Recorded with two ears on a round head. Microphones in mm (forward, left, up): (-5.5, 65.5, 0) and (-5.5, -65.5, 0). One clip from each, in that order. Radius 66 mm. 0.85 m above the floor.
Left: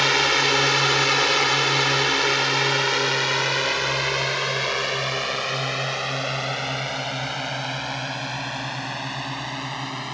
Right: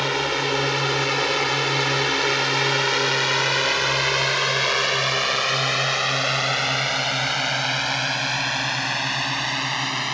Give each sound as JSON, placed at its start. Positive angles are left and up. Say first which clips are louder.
{"t": 0.0, "sound": "a drone", "louder": "left 4 dB", "side_deg": 40}